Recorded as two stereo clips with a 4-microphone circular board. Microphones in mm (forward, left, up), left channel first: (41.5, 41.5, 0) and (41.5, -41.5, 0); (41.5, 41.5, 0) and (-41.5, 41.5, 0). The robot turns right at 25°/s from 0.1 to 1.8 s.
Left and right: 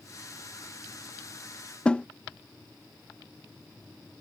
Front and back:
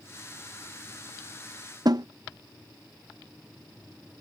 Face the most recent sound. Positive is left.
turn(degrees=160)